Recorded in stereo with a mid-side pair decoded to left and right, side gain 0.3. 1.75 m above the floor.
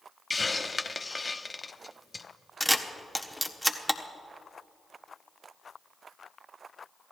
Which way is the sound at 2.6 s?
Straight ahead.